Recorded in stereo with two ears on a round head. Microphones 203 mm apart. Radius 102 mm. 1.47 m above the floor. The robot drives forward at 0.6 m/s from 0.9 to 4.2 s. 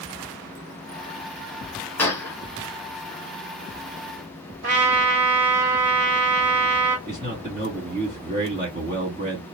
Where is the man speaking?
30° right (ahead or behind), 3 m.